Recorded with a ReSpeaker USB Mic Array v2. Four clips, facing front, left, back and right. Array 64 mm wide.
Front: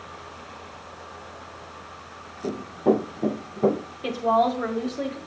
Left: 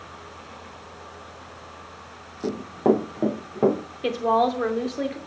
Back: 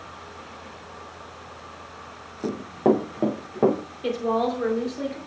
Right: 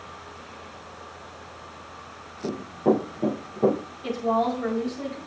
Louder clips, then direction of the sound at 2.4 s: Left 2 dB, back 1 dB; 140° left.